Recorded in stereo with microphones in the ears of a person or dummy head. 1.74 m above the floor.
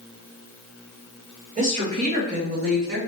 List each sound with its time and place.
1.6 s a woman speaking: 35° right (ahead or behind), 2 m; by 3.0 s 60° right (ahead or behind), 1.3 m